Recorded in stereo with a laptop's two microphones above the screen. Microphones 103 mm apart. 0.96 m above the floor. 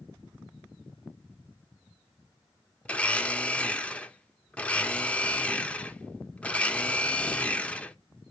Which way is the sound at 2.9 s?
15° left (ahead or behind).